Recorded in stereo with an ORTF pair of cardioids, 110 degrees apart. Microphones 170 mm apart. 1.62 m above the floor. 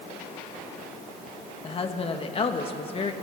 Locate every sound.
1.6 s a woman speaking: 35° left, 2.0 m